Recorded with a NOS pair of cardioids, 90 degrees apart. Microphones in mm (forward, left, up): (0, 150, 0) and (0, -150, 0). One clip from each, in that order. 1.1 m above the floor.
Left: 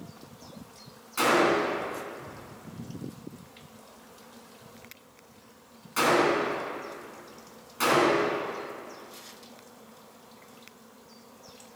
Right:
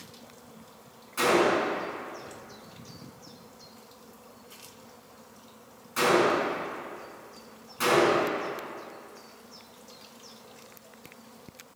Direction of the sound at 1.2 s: 20° left.